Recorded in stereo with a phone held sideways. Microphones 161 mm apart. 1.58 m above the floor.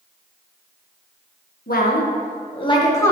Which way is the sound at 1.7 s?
65° left (ahead or behind).